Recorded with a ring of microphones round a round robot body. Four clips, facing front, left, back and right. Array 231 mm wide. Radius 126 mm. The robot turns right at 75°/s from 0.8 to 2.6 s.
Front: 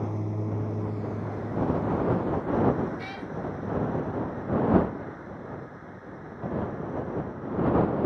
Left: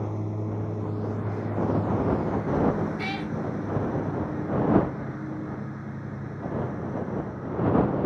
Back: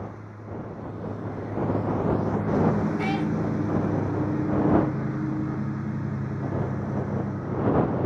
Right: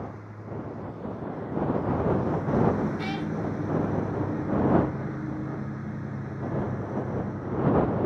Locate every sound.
0.0 s a lawn mower: 45° left; by 8.1 s straight behind
3.0 s a cat meowing: 165° left